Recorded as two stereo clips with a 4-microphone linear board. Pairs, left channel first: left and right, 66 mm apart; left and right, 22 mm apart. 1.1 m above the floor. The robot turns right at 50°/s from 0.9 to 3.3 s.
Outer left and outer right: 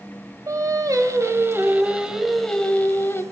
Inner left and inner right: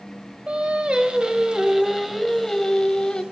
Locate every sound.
0.5 s singing: 70° right, 1.6 m; by 3.2 s 45° left, 1.6 m